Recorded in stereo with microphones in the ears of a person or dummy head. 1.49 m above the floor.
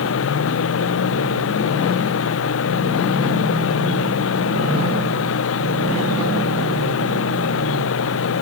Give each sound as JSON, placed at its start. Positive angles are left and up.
{"t": 0.0, "sound": "a machine running", "side_deg": 75}